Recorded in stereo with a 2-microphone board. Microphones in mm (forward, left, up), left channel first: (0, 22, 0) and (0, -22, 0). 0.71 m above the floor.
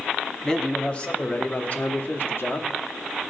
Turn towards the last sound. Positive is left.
turn(degrees=60)  # may be behind; listen again after turning